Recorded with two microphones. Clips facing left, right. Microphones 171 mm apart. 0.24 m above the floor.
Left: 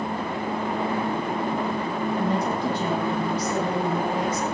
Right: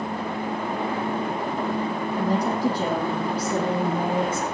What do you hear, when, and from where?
2.2 s a woman speaking: 40° right (ahead or behind), 10 m; by 4.5 s 30° right (ahead or behind), 9.5 m